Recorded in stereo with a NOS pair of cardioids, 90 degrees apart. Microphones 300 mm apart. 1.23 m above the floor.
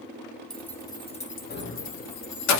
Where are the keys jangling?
Straight ahead, 1.0 m; by 2.6 s 70° left, 1.0 m.